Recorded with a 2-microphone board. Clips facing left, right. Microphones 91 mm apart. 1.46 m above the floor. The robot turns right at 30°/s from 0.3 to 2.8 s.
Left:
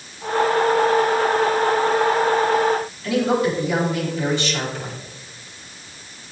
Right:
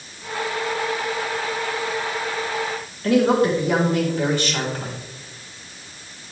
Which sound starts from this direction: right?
A woman speaking, at 3.0 s.